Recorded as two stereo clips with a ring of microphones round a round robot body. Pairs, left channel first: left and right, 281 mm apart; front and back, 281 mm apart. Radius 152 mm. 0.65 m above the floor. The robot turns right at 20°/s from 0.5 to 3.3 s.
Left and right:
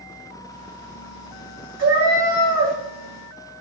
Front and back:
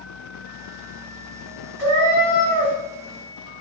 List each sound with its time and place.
1.8 s a cat meowing: 140° right, 1.0 m; by 2.8 s 125° right, 1.0 m